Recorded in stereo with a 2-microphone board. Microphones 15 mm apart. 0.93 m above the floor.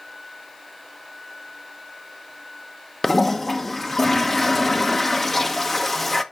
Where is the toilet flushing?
10° left (ahead or behind), 0.9 m.